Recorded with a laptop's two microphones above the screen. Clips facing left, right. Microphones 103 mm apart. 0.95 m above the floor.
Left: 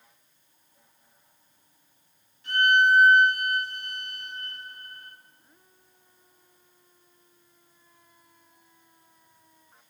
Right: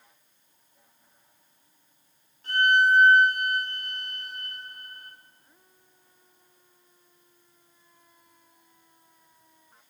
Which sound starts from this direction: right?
A violin, at 2.4 s.